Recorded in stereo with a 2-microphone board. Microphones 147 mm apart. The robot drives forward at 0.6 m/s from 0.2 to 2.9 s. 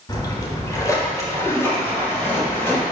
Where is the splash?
30° left (ahead or behind), 1.3 m; by 2.8 s 15° left (ahead or behind), 3 m.